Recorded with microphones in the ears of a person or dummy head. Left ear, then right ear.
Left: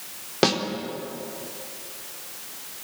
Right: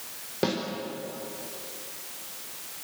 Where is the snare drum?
35° left (ahead or behind), 4 m.